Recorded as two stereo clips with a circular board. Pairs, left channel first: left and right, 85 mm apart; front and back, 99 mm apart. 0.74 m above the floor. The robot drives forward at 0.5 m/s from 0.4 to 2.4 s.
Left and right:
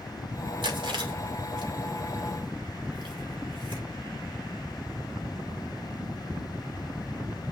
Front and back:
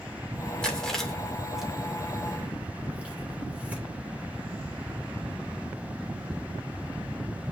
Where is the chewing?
80° right, 2.5 m; by 3.8 s 105° right, 2.5 m.